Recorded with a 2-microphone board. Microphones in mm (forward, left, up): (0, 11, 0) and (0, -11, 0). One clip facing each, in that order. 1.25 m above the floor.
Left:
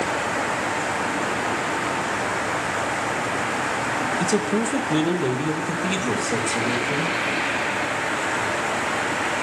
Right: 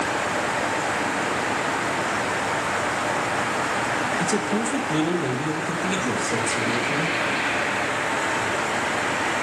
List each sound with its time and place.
4.2 s a man speaking: 20° left (ahead or behind), 0.7 m